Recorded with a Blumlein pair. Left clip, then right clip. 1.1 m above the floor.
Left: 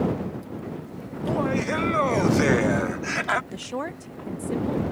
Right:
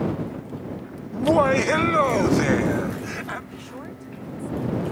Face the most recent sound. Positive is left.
turn(degrees=30)